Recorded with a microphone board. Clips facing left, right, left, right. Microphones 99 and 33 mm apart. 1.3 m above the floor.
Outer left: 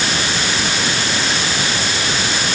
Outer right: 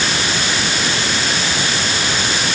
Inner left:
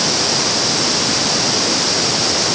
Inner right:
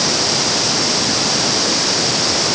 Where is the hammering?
No hammering in this recording.